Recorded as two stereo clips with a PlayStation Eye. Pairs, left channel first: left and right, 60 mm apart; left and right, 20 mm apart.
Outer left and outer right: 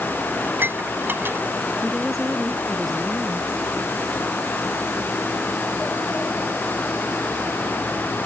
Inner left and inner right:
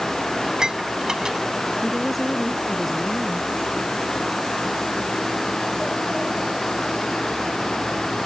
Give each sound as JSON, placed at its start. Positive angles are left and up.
{"t": 0.4, "sound": "dishes clattering", "side_deg": -35}
{"t": 1.8, "sound": "a woman speaking", "side_deg": 0}